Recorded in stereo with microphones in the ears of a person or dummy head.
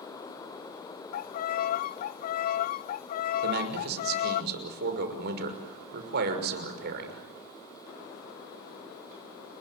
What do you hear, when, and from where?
1.1 s a violin: 50° left (ahead or behind), 0.5 m
3.4 s a man speaking: 60° right (ahead or behind), 6 m